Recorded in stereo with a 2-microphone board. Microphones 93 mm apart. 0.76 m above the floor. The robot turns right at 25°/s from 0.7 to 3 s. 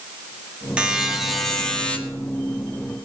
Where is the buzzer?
15° right, 1.8 m; by 2.0 s 15° left, 1.8 m.